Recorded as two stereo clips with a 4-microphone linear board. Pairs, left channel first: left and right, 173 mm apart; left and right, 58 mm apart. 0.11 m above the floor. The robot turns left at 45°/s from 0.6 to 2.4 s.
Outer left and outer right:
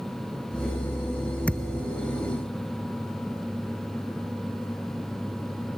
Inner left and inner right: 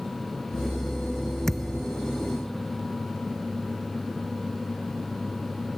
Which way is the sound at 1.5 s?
10° left (ahead or behind).